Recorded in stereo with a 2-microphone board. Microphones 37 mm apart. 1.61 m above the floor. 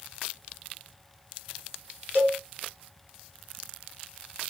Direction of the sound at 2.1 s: 60° left (ahead or behind).